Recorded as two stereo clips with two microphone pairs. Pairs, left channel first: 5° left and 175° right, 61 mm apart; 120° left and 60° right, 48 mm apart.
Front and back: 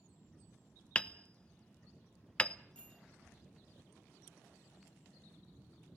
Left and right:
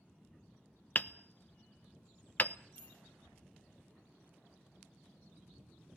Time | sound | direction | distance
0.9 | hammering | 75° left | 0.7 m
2.8 | a bicycle bell | 75° left | 9.5 m